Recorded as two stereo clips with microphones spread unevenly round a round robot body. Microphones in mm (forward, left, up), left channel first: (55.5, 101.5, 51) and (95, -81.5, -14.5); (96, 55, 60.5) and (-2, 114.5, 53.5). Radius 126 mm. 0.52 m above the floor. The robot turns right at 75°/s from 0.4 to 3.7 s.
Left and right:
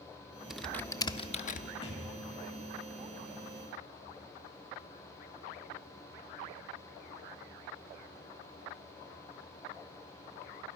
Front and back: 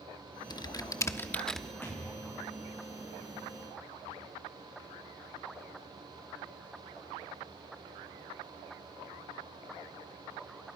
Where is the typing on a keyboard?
20° right, 1.1 m; by 1.7 s 70° left, 1.1 m.